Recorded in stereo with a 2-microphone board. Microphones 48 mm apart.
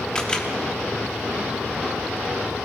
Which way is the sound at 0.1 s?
15° left (ahead or behind).